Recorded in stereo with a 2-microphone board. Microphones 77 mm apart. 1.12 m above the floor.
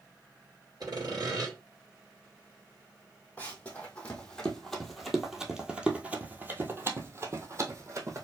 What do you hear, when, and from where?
0.8 s sawing: 60° right (ahead or behind), 1.9 m
3.4 s running footsteps: 25° left (ahead or behind), 1.8 m; by 8.2 s 45° right (ahead or behind), 1.7 m